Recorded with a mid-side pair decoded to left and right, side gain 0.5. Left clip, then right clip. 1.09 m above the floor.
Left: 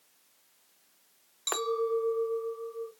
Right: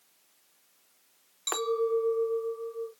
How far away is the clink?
About 0.5 m.